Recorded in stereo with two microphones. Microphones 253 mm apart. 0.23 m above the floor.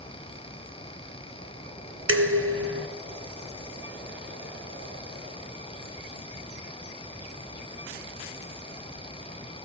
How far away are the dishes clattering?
About 1.5 m.